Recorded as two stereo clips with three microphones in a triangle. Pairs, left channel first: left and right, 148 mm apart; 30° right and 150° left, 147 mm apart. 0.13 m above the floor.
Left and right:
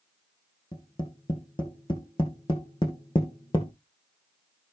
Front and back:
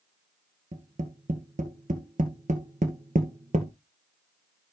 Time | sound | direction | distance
0.7 | tapping | 140° left | 1.7 m